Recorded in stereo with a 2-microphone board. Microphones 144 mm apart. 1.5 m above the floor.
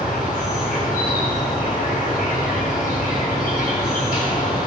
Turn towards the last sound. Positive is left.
turn(degrees=85)